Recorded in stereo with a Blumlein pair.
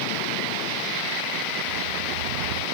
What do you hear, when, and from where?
1.7 s a dog barking: 60° right